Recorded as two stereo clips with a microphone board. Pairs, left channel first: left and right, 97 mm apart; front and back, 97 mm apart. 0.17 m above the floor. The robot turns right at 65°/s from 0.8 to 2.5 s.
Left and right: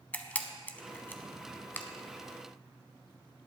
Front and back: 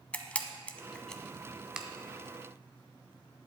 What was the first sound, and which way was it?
A camera shutter, 50° left.